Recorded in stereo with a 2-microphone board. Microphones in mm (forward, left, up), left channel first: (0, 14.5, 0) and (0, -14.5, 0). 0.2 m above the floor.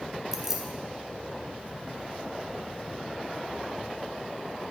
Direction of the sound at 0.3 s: 10° right (ahead or behind).